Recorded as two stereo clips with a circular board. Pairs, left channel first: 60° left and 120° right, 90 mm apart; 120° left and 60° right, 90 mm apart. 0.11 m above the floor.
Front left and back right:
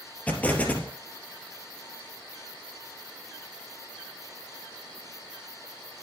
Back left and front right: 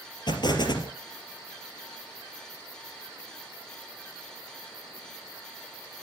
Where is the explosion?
130° left, 3 m.